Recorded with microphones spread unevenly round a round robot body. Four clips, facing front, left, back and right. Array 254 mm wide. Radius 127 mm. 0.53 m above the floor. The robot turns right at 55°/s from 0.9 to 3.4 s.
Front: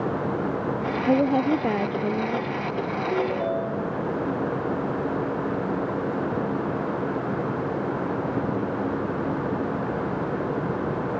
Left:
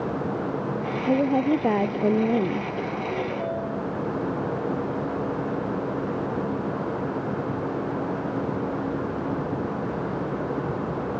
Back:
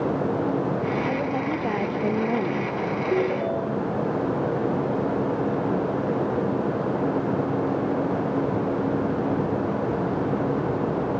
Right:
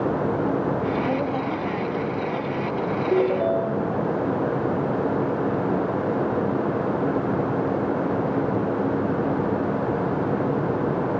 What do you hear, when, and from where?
1.1 s a woman speaking: 30° left; by 2.7 s 120° left
3.1 s a ringtone: 110° right; by 4.0 s 95° right